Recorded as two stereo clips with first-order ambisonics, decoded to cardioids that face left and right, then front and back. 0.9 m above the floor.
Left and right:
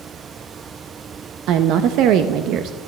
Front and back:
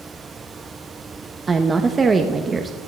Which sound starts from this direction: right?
A woman speaking, at 1.5 s.